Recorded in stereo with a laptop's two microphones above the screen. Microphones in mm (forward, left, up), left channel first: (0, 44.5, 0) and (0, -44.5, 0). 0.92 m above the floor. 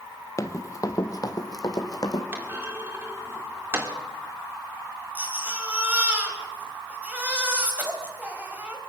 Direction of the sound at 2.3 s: 25° right (ahead or behind).